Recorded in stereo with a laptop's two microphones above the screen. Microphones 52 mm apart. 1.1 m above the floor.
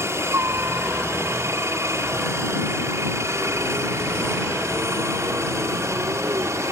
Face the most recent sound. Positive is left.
turn(degrees=-70)  # may be behind; listen again after turning